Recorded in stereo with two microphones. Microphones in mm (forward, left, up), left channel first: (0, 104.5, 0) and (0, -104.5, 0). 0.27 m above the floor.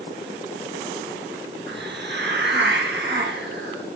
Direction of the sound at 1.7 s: 60° right (ahead or behind).